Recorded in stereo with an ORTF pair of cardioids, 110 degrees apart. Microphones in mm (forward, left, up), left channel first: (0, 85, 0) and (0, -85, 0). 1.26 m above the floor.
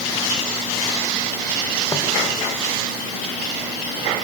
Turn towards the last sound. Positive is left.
turn(degrees=20)